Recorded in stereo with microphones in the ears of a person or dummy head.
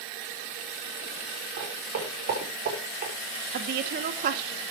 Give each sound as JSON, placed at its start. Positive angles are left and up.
{"t": 1.6, "sound": "footsteps", "side_deg": -50, "distance_m": 7.0}
{"t": 3.5, "sound": "a woman speaking", "side_deg": -50, "distance_m": 2.5}